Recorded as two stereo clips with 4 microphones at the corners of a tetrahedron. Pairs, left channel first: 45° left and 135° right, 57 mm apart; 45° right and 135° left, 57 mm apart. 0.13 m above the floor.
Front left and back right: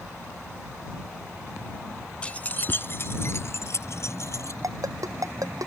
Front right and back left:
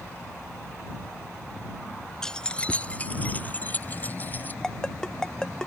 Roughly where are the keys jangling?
Ahead.